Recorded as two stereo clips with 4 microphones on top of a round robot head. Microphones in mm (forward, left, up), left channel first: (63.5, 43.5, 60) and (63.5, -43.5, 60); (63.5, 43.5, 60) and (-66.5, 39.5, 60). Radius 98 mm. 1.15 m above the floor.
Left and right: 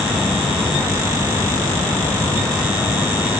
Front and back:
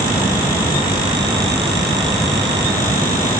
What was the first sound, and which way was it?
Only background noise.